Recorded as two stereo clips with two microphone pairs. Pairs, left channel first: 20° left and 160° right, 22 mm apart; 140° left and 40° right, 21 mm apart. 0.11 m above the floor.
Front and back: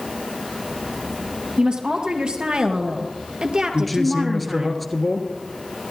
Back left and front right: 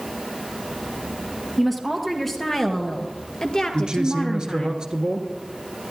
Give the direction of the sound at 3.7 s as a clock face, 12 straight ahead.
2 o'clock.